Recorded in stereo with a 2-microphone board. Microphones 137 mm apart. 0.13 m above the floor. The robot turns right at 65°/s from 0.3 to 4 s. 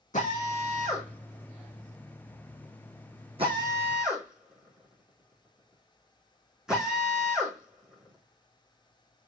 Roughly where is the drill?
Left.